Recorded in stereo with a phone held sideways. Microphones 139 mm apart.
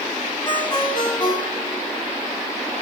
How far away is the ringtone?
About 2 m.